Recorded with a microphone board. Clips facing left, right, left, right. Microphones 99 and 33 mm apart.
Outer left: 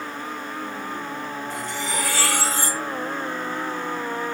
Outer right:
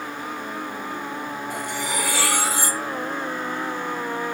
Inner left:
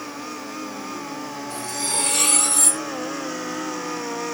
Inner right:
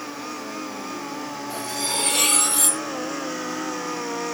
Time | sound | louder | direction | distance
1.5 | cutlery clinking | outer right 1 dB, inner right 1 dB | 10° right (ahead or behind) | 0.6 m